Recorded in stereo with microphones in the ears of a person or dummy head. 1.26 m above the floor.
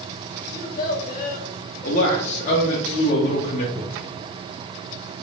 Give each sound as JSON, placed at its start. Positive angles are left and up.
{"t": 0.5, "sound": "a child speaking", "side_deg": 50, "distance_m": 0.7}
{"t": 1.8, "sound": "a man speaking", "side_deg": 45, "distance_m": 0.8}
{"t": 3.8, "sound": "a cupboard door", "side_deg": -60, "distance_m": 1.8}